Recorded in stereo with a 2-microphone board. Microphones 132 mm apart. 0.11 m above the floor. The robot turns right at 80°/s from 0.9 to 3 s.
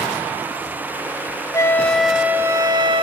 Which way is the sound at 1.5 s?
140° left.